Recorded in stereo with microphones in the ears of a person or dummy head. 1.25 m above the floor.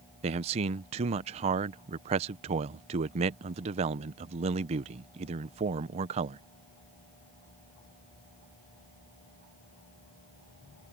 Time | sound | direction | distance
0.2 | a man speaking | 35° right (ahead or behind) | ?